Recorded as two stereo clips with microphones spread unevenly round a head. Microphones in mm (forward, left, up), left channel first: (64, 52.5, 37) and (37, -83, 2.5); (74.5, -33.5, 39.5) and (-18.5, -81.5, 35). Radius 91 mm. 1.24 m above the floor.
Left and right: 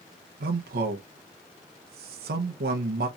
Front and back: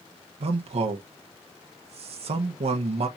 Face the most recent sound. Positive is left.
turn(degrees=-130)